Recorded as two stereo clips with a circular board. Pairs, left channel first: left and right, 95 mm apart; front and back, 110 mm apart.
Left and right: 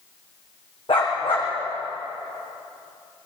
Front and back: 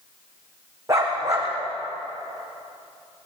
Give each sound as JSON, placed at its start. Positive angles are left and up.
{"t": 0.9, "sound": "a dog barking", "azimuth_deg": 115, "distance_m": 6.0}